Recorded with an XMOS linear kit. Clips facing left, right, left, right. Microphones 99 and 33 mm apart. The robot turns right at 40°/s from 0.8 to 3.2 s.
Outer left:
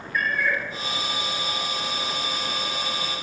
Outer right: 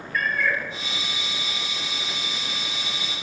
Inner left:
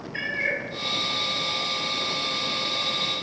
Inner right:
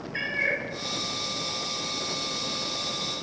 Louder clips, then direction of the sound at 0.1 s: Even, even; 10° left (ahead or behind).